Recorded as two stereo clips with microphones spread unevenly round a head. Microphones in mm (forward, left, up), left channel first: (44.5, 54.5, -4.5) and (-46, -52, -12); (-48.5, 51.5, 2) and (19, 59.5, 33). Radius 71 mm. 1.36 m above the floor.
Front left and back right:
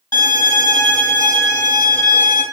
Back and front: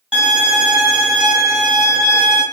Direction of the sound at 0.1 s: 5° left.